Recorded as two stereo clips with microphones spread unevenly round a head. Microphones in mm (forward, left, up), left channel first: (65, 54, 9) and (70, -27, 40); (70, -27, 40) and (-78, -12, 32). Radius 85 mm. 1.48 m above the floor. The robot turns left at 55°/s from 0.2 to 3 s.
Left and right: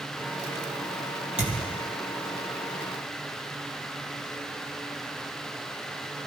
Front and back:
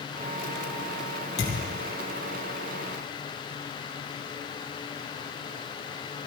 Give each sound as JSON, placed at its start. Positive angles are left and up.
{"t": 1.4, "sound": "a thud", "azimuth_deg": -15, "distance_m": 4.5}